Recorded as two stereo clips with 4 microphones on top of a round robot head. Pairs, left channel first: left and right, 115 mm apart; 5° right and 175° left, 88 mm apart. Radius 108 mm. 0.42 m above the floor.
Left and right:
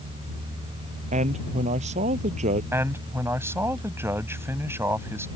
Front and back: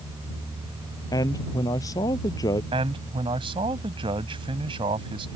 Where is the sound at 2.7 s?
160° right.